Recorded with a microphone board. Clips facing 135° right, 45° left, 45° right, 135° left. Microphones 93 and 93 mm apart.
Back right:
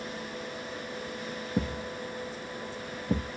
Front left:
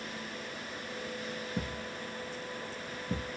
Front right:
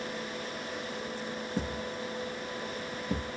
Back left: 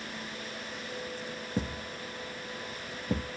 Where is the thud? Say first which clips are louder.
Back right 6 dB, even; 160° right, 0.9 m.